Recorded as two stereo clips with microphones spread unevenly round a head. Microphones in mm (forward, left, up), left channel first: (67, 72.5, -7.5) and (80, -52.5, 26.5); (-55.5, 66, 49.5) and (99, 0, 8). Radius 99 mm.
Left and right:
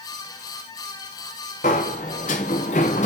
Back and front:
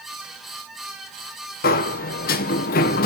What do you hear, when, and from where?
1.6 s a sliding door: 150° left, 0.6 m